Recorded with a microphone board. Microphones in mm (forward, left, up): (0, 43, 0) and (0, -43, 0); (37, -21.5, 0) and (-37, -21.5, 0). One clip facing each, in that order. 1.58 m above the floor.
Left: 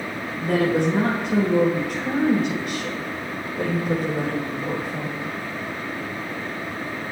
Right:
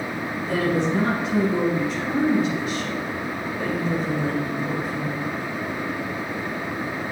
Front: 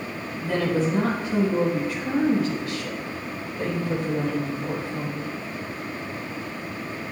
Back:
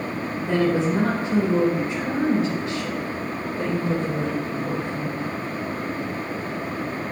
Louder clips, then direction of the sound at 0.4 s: Left 3 dB, back 2 dB; 115° left.